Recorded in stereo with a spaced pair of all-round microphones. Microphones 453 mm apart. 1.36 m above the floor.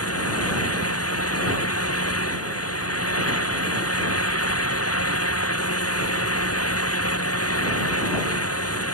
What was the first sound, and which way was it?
A fan, 30° left (ahead or behind).